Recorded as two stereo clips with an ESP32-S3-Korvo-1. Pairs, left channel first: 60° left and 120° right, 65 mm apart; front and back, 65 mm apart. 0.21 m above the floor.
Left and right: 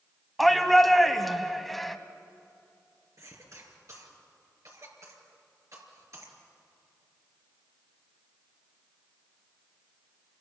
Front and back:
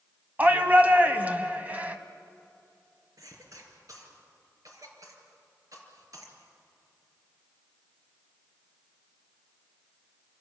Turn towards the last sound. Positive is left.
turn(degrees=-155)